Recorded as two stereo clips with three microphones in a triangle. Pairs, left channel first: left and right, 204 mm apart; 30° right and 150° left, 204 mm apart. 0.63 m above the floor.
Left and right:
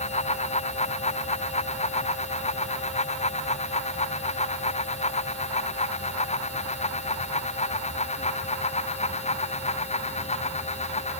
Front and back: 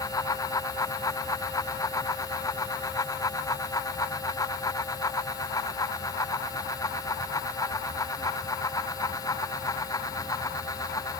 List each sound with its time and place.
Only background noise.